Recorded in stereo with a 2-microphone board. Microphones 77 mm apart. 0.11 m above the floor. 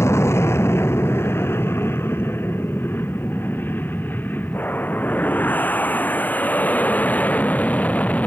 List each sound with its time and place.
0.0 s an aircraft: 35° left (ahead or behind); by 8.3 s 20° left (ahead or behind)